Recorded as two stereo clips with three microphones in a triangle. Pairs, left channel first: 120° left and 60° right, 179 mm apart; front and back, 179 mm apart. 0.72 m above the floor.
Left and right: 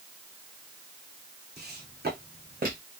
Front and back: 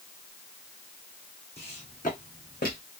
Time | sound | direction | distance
1.6 | footsteps | 55° right | 1.8 m